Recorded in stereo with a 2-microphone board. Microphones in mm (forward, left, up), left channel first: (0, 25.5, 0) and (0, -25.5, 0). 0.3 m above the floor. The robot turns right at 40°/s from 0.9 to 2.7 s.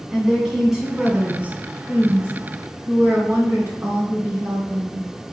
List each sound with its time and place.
0.1 s a woman speaking: 165° right, 3 m; by 5.1 s 95° right, 3 m